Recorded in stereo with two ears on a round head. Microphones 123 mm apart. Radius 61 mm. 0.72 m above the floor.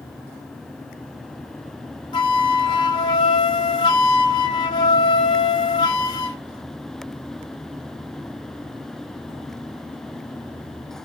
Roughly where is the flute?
Left.